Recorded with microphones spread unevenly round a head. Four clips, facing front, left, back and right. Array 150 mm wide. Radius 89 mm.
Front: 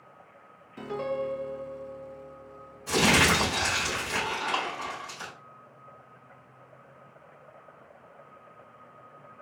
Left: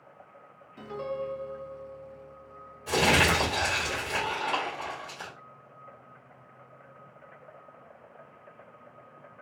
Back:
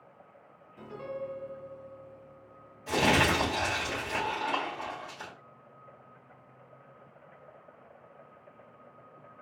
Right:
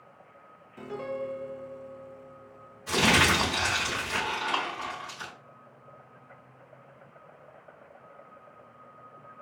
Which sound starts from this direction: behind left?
Crumpling, at 2.9 s.